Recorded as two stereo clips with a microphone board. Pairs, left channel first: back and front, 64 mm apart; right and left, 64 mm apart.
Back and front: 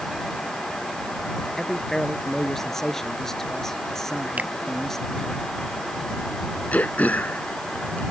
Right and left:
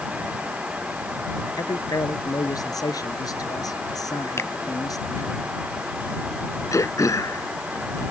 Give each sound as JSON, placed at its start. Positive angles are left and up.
{"t": 1.6, "sound": "a man speaking", "azimuth_deg": -95}
{"t": 4.4, "sound": "a finger snap", "azimuth_deg": -60}
{"t": 6.7, "sound": "throat clearing", "azimuth_deg": -115}